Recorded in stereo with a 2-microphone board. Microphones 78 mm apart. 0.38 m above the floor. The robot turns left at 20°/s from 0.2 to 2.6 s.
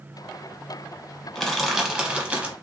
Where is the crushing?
5° left (ahead or behind), 0.9 m; by 2.5 s 20° right (ahead or behind), 0.9 m.